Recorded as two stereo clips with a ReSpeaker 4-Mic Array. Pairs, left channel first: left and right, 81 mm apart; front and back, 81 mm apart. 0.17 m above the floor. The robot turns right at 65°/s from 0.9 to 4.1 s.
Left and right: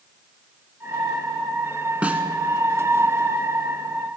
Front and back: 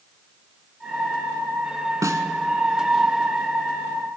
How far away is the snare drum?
About 1.0 m.